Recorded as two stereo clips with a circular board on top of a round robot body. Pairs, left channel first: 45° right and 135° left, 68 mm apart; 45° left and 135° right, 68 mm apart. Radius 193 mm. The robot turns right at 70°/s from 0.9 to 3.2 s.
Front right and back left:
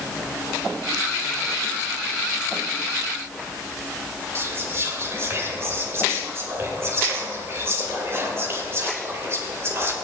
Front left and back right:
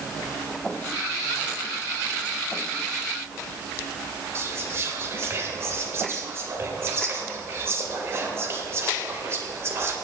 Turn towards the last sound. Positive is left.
turn(degrees=180)